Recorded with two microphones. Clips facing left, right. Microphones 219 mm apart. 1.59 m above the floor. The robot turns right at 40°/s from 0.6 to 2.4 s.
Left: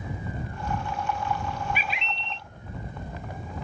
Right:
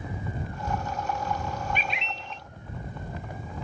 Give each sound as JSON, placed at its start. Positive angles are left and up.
{"t": 1.8, "sound": "a bird", "side_deg": 10}